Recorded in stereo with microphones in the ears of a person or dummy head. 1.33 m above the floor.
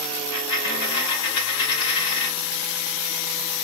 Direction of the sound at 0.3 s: 75° left (ahead or behind).